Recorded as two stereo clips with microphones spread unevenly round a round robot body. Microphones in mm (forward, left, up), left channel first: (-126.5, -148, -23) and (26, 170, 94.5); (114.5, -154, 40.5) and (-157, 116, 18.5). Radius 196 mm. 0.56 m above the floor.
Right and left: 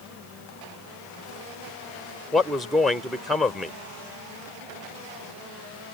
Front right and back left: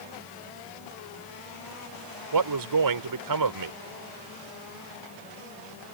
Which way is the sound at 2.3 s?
165° left.